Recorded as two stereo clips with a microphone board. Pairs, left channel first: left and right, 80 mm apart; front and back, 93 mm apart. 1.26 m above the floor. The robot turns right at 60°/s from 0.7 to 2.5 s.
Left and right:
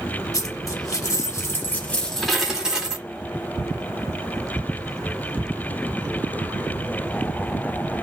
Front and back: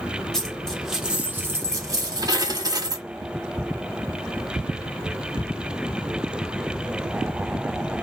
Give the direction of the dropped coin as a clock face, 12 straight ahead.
9 o'clock.